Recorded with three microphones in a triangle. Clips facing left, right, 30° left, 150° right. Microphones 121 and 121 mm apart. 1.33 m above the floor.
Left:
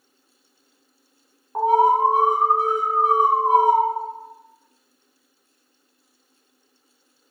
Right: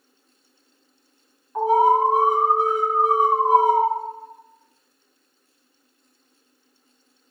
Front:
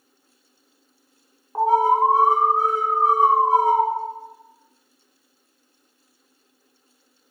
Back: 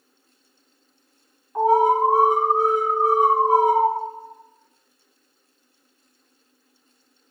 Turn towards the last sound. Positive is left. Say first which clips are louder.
# even, even
turn(degrees=65)